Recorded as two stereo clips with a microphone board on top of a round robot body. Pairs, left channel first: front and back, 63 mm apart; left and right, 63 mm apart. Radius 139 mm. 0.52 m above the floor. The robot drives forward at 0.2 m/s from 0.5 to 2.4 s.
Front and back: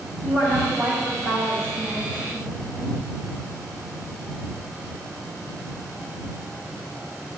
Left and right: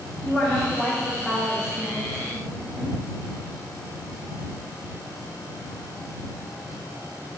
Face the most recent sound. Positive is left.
turn(degrees=165)